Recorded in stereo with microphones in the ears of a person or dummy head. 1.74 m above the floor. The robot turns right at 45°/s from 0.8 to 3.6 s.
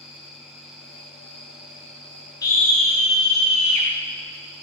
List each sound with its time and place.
0.0 s an insect: 150° left, 3 m; by 4.6 s 85° right, 3 m
2.4 s a scream: 160° left, 0.6 m; by 3.9 s 145° right, 0.6 m